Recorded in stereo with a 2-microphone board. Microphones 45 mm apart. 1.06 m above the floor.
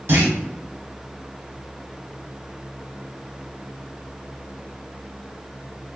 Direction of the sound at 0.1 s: 55° right (ahead or behind).